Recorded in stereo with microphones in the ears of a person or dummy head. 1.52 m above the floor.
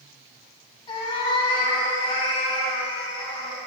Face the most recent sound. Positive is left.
turn(degrees=30)  # may be behind; listen again after turning